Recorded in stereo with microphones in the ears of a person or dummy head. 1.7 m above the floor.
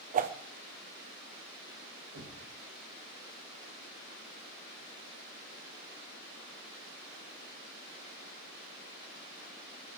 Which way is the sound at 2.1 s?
75° right (ahead or behind).